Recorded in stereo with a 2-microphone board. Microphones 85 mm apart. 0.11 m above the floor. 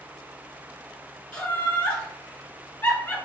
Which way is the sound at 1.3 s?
15° left (ahead or behind).